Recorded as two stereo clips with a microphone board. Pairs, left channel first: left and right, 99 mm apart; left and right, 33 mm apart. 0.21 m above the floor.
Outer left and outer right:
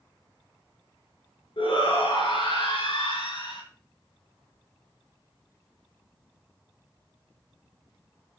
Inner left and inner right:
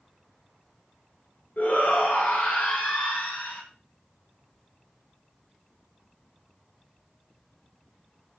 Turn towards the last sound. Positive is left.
turn(degrees=70)  # may be behind; listen again after turning